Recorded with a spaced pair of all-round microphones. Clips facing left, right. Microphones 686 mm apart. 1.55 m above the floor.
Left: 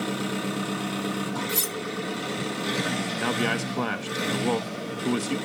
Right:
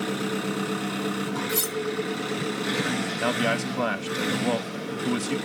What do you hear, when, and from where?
0.0 s an engine running: 25° left (ahead or behind), 6.5 m
1.5 s cutlery clinking: 15° left (ahead or behind), 0.8 m
3.2 s a man speaking: 15° right (ahead or behind), 0.9 m